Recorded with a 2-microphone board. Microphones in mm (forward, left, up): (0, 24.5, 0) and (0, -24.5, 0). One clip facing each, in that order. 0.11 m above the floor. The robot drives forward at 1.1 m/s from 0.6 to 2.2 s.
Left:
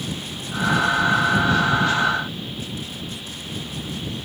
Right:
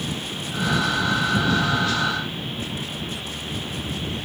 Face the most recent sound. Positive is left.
No sound to turn to.